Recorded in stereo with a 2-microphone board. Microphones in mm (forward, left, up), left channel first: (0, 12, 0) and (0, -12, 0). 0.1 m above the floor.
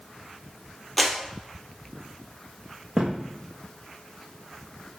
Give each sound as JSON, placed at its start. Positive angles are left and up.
{"t": 1.0, "sound": "a clap", "side_deg": 0, "distance_m": 2.0}
{"t": 3.0, "sound": "a thud", "side_deg": -25, "distance_m": 3.0}